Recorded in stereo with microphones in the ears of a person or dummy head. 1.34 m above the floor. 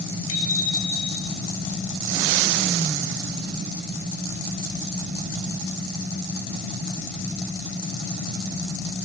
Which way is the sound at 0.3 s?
80° left.